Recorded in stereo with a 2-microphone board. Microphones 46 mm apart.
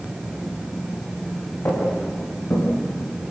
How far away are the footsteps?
About 7 m.